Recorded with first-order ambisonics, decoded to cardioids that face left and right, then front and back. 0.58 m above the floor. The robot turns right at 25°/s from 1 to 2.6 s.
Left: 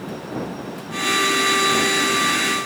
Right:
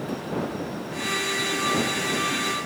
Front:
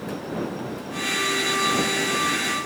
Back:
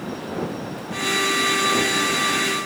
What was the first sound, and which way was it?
Only background noise.